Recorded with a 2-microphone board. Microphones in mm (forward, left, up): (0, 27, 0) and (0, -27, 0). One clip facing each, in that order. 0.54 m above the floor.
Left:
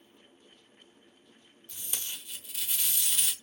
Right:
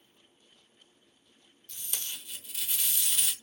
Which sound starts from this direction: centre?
Tape being pulled, at 1.7 s.